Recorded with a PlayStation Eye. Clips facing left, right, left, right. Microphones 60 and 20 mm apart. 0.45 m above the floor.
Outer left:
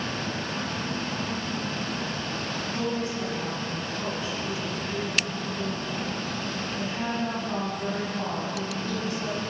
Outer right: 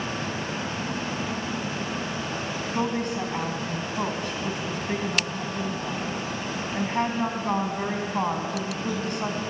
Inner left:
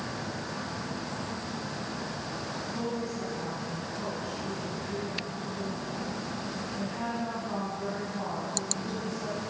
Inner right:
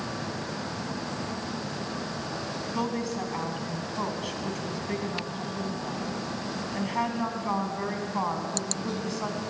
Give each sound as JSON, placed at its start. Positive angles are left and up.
{"t": 2.8, "sound": "a woman speaking", "side_deg": -65, "distance_m": 3.5}